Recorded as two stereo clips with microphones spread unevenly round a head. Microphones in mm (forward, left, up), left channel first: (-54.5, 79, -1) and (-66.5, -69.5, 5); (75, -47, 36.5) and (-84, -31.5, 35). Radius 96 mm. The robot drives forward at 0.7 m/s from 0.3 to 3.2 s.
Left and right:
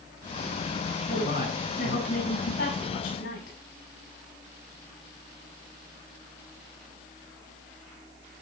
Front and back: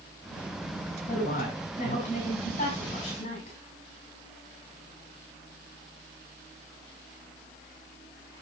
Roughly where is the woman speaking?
Ahead left.